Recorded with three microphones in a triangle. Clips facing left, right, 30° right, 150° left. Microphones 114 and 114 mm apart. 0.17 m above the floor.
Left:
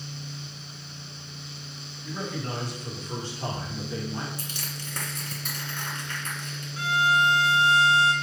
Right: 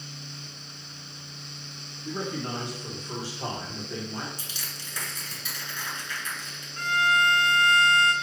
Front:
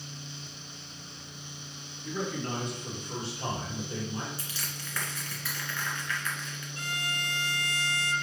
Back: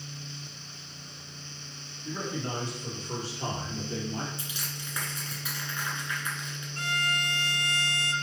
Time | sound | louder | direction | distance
2.0 | a man speaking | right 1 dB, front 1 dB | 145° right | 3 m
4.4 | crushing | left 5 dB, back 1 dB | 85° left | 1.9 m
6.8 | a violin | left 1 dB, back 5 dB | 170° left | 0.5 m